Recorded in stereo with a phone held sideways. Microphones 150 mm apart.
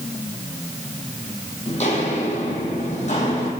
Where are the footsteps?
45° left (ahead or behind), 1.9 m; by 3.5 s 50° left (ahead or behind), 2.5 m.